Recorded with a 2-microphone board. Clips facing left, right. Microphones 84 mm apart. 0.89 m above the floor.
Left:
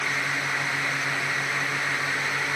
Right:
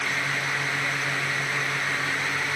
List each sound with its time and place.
Only background noise.